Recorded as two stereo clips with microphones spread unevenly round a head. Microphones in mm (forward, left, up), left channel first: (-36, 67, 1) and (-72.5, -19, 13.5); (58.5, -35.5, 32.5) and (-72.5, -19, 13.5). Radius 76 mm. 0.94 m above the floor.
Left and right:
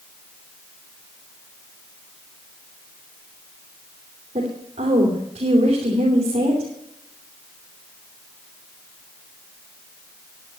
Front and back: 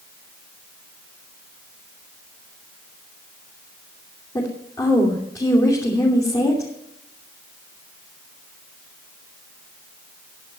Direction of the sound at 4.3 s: 70° right.